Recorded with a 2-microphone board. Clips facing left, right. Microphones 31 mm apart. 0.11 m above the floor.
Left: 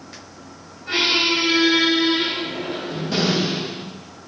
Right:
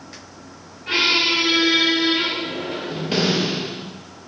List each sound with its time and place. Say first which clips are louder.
0.9 s a squeak: right 1 dB; 60° right (ahead or behind), 1.1 m